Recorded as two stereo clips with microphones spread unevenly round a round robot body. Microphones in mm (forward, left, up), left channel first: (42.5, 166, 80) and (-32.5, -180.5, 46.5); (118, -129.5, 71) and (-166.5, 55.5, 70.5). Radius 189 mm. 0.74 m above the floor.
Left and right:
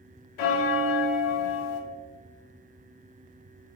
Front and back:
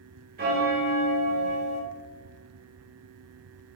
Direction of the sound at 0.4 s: 80° left.